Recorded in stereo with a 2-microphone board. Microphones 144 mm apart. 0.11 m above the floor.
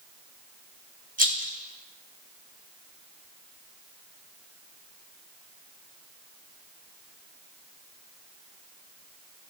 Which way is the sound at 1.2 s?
85° right.